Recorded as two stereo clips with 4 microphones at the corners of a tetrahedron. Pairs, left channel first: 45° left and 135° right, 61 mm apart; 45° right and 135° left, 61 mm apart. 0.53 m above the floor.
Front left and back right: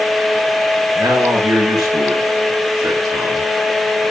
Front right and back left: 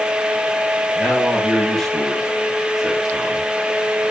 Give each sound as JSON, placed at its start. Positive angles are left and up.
{"t": 0.9, "sound": "a man speaking", "azimuth_deg": -120, "distance_m": 8.0}